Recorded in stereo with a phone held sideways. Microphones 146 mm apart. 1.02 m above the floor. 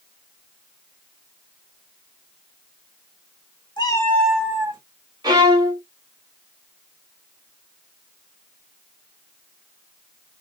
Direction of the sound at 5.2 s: 25° right (ahead or behind).